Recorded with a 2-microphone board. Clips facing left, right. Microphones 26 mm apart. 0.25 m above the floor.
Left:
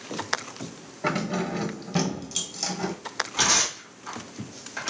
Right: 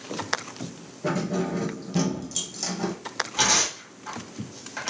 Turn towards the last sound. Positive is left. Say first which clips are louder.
# right 1 dB
turn(degrees=0)  # may be behind; listen again after turning